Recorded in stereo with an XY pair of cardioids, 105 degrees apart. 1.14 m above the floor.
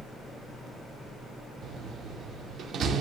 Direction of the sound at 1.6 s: 60° right.